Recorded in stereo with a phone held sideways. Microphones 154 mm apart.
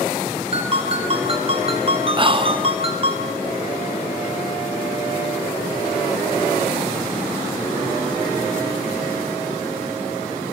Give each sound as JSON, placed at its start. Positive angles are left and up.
{"t": 0.5, "sound": "a ringtone", "side_deg": -40, "distance_m": 2.5}
{"t": 2.2, "sound": "whispering", "side_deg": -30, "distance_m": 1.0}